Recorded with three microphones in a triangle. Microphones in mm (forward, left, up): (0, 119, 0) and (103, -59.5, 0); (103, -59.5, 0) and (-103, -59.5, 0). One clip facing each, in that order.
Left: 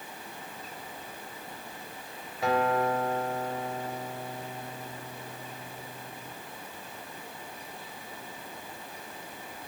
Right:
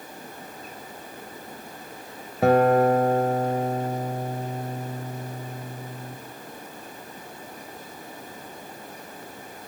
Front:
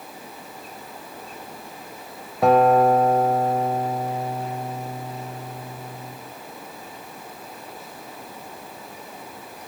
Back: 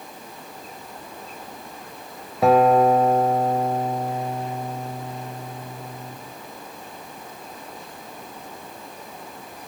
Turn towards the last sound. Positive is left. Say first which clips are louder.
# right 9 dB, even
turn(degrees=-90)